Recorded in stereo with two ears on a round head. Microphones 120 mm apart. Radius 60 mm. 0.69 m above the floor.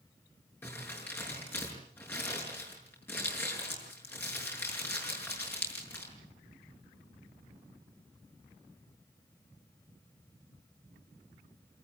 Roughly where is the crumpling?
Centre.